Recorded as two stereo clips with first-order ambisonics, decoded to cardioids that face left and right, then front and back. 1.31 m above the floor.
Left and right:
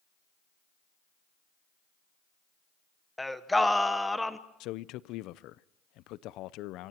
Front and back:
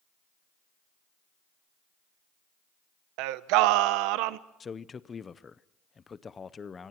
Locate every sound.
3.2 s singing: 175° left, 0.8 m
4.6 s a man speaking: 70° left, 0.5 m